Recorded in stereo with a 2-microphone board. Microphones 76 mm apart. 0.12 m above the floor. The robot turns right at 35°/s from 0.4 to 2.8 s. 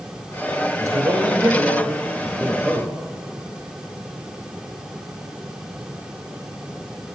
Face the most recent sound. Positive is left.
turn(degrees=5)